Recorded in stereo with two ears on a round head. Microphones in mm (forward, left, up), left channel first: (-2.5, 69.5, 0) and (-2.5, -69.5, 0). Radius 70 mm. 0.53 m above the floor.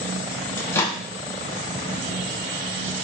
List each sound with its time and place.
0.6 s a microwave: 15° left (ahead or behind), 0.5 m